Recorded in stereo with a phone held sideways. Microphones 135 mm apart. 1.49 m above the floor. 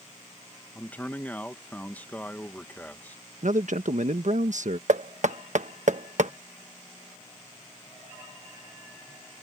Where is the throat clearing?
No throat clearing in this recording.